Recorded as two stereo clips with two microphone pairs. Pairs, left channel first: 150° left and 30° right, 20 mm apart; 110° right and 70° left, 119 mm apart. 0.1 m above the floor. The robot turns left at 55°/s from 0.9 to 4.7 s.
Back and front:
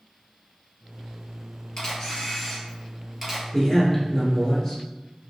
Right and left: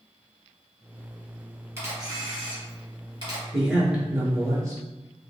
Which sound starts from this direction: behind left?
A camera shutter, at 1.8 s.